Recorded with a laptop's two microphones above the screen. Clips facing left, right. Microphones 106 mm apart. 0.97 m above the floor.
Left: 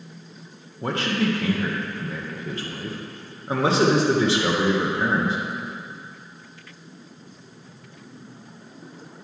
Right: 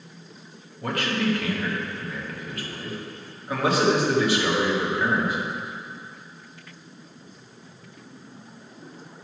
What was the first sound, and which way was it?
A man speaking, 25° left (ahead or behind).